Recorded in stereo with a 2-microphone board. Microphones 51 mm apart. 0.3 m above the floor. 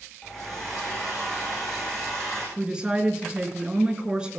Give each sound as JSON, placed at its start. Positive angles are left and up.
{"t": 0.2, "sound": "a hair dryer", "side_deg": 5, "distance_m": 7.5}
{"t": 2.6, "sound": "a woman speaking", "side_deg": -15, "distance_m": 3.5}